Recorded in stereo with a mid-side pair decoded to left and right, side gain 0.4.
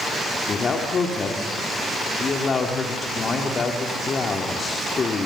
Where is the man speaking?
50° left, 3 m.